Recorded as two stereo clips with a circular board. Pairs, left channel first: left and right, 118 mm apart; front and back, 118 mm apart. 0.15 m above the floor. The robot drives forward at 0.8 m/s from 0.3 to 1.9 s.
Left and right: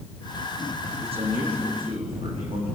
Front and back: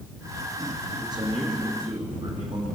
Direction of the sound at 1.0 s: 125° right.